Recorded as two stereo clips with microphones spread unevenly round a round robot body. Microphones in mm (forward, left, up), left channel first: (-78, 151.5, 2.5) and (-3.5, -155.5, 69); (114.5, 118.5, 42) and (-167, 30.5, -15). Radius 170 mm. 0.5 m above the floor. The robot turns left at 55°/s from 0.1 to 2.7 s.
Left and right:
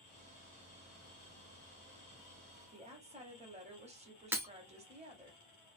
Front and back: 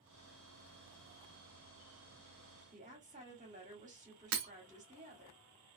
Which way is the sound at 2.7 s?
150° right.